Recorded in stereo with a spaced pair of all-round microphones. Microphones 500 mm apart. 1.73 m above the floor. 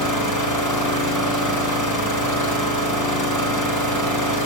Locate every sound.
0.0 s an engine running: 50° left (ahead or behind), 3 m